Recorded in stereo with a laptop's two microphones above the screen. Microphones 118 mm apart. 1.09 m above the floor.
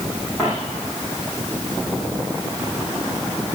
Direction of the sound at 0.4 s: 15° left (ahead or behind).